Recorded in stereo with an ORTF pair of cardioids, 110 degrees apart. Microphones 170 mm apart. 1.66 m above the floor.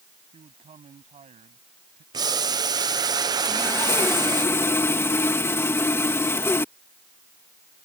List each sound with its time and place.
0.3 s a man speaking: 35° right; by 2.0 s 45° right
2.1 s boiling: 25° right
3.5 s sawing: 15° left